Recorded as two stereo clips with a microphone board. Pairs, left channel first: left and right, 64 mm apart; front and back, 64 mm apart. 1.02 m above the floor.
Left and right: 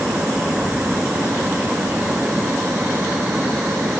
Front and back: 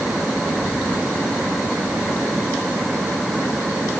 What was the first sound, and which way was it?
Only background noise.